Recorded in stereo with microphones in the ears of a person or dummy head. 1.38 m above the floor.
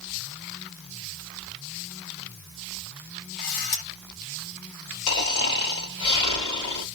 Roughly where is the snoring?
Left.